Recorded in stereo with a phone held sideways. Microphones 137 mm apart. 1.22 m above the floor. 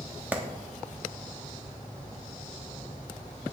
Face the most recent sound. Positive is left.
turn(degrees=-10)  # may be behind; listen again after turning